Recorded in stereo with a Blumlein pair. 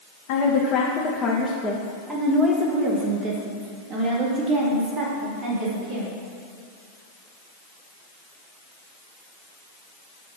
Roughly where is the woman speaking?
Ahead left.